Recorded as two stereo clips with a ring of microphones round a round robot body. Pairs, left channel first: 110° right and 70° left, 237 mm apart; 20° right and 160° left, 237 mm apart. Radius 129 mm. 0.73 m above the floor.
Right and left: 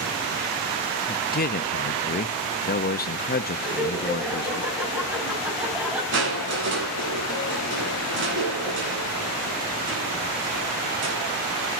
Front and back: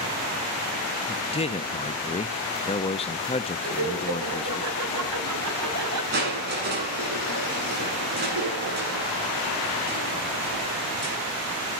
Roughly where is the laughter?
Behind left.